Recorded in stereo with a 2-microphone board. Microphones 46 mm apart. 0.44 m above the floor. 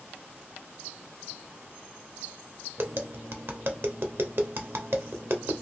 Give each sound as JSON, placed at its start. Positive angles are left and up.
{"t": 2.8, "sound": "tapping", "side_deg": -55, "distance_m": 0.6}